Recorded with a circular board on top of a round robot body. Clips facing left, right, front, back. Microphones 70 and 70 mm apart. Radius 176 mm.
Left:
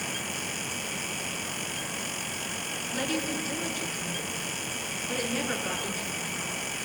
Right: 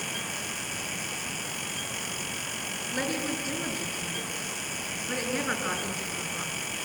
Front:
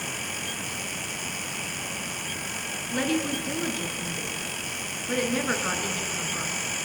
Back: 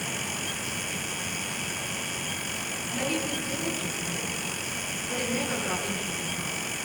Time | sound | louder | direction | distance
2.9 | a woman speaking | even, front 4 dB | 30° right | 7.5 m